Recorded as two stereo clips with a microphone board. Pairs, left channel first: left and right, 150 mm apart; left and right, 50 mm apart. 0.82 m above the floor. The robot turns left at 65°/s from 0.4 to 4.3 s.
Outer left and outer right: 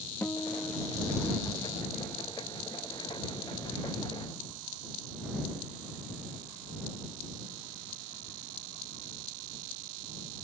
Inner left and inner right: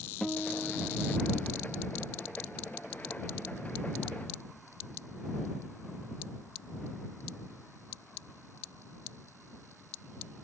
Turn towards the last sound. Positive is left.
turn(degrees=120)